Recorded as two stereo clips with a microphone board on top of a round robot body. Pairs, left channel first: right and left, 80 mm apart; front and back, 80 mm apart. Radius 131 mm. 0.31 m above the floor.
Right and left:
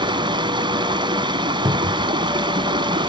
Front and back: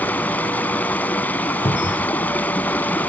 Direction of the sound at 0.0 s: 70° left.